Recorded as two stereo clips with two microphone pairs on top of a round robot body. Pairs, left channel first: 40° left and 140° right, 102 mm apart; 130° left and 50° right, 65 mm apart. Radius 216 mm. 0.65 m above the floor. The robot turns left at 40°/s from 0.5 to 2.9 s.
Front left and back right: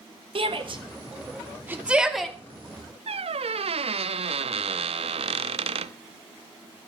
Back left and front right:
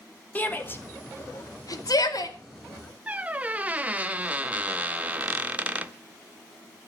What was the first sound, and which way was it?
A shout, 165° right.